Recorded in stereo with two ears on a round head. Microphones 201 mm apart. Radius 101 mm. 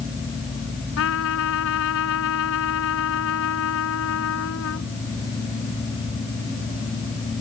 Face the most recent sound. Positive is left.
turn(degrees=70)  # may be behind; listen again after turning